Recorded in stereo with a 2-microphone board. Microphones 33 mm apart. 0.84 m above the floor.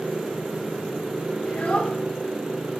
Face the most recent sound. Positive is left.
turn(degrees=35)  # may be behind; listen again after turning